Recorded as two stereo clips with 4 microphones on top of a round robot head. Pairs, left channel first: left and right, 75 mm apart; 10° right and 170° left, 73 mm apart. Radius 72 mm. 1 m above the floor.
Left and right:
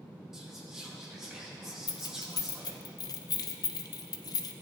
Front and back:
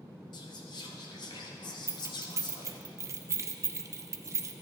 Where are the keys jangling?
125° left, 0.6 m.